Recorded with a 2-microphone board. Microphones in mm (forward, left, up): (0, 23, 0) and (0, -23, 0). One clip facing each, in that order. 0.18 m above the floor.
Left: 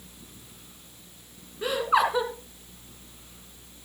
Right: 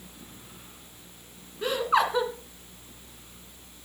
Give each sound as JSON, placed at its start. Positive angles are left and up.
{"t": 1.6, "sound": "laughter", "side_deg": 5, "distance_m": 2.0}